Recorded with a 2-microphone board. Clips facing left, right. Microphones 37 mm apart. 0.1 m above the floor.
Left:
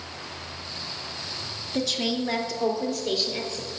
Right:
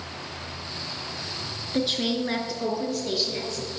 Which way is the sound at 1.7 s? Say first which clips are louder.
Right 1 dB; 25° right (ahead or behind).